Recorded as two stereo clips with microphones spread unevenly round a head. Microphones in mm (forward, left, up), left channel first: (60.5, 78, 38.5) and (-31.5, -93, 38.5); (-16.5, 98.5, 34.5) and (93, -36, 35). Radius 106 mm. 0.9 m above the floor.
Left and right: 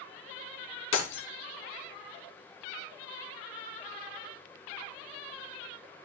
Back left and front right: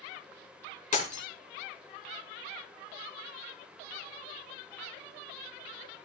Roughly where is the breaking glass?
Left.